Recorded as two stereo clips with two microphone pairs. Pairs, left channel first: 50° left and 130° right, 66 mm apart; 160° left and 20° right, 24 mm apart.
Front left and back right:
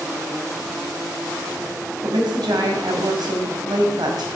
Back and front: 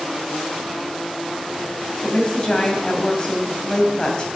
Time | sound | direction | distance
2.0 | a woman speaking | 140° right | 2.5 m